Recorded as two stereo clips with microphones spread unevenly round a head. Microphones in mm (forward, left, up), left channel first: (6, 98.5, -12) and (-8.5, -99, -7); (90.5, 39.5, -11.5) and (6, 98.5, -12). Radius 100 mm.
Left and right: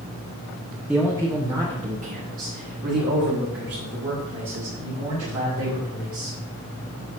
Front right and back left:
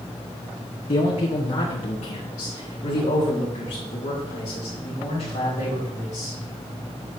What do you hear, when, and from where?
0.9 s a man speaking: 10° right, 1.0 m; by 6.4 s 65° right, 4 m